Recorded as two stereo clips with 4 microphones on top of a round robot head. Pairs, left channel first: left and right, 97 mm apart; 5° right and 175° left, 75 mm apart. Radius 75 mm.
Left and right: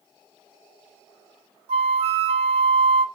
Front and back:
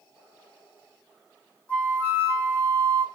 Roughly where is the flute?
Right.